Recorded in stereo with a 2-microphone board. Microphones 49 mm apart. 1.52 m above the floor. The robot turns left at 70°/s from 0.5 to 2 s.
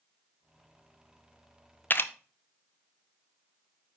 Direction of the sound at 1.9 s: 40° left (ahead or behind).